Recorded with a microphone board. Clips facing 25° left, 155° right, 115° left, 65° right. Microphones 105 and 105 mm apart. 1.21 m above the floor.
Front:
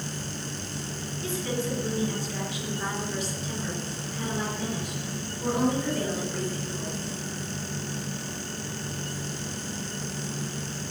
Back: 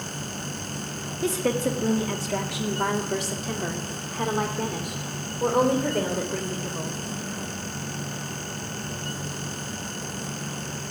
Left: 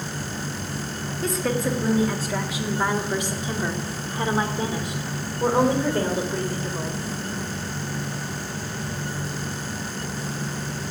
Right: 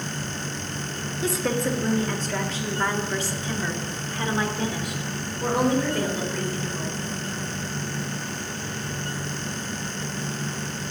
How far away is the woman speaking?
About 2.0 m.